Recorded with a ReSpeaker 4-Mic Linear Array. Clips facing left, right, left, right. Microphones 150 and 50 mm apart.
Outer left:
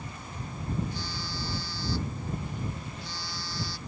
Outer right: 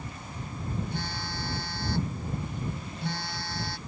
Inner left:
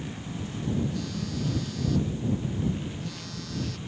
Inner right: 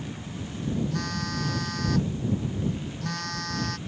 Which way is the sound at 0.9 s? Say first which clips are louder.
Outer right 2 dB, inner right 2 dB; 60° right (ahead or behind).